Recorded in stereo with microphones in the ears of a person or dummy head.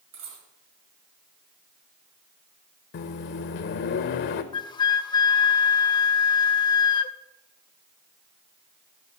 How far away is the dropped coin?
About 7 m.